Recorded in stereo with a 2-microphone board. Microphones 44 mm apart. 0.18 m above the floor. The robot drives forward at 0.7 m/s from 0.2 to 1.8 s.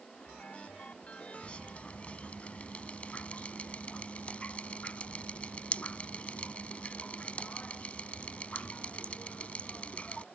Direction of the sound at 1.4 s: 30° left (ahead or behind).